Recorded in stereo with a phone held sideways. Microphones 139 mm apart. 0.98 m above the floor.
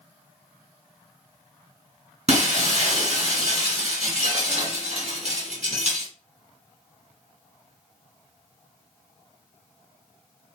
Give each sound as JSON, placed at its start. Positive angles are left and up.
{"t": 2.3, "sound": "breaking glass", "side_deg": -55, "distance_m": 1.7}